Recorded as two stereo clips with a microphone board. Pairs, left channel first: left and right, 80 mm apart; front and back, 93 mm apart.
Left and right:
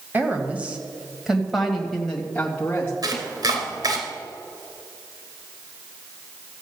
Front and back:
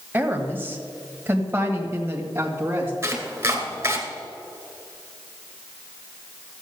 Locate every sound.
0.1 s a woman speaking: 130° right, 1.6 m; by 2.9 s 140° left, 1.7 m
3.0 s chopping: 120° right, 2.5 m